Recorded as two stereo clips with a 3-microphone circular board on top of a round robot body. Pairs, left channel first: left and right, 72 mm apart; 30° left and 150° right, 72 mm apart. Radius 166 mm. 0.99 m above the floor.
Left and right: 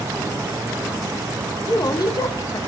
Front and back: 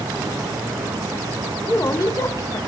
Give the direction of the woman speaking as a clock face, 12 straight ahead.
10 o'clock.